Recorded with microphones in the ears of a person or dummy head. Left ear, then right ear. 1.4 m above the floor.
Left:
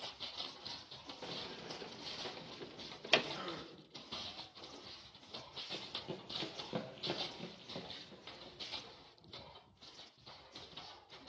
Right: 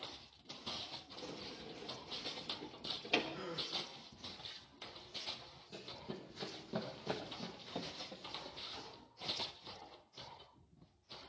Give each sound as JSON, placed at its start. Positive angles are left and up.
{"t": 1.2, "sound": "a sliding door", "side_deg": 65, "distance_m": 1.2}
{"t": 3.3, "sound": "a gasp", "side_deg": 25, "distance_m": 1.9}
{"t": 5.7, "sound": "running footsteps", "side_deg": 55, "distance_m": 2.5}